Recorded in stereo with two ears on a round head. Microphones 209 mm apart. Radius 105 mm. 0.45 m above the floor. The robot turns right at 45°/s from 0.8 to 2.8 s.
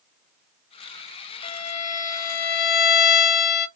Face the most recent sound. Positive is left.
turn(degrees=95)